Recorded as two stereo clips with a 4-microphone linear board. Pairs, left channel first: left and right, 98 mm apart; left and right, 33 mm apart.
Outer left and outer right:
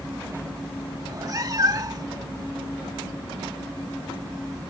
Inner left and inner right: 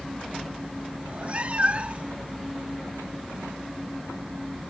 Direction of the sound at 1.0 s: 40° right (ahead or behind).